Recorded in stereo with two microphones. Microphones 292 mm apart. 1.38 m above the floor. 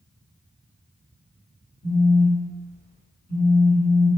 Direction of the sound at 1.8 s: 40° left (ahead or behind).